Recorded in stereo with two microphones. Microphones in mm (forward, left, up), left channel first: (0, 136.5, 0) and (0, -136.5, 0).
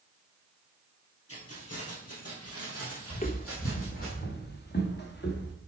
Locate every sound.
1.3 s keys jangling: 60° left (ahead or behind), 2.5 m; by 4.1 s 55° left (ahead or behind), 4.5 m
3.1 s footsteps: 25° left (ahead or behind), 0.7 m; by 5.5 s 45° left (ahead or behind), 2.5 m